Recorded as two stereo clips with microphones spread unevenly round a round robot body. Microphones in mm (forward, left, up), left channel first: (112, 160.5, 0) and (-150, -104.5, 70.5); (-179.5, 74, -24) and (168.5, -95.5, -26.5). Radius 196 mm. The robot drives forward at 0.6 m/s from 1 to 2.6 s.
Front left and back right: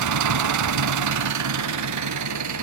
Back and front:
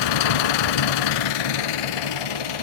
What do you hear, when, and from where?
0.0 s an engine running: straight behind, 0.9 m